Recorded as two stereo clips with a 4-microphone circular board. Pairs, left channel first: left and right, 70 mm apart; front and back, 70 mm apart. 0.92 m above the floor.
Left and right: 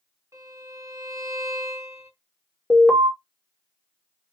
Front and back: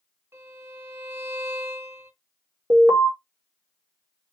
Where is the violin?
130° right, 2.5 m.